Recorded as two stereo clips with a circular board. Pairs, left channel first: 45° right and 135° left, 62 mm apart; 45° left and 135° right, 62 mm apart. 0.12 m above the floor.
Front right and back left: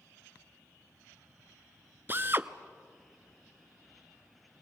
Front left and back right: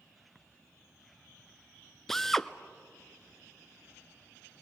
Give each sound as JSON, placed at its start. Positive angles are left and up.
{"t": 2.1, "sound": "a drill", "azimuth_deg": 125, "distance_m": 0.5}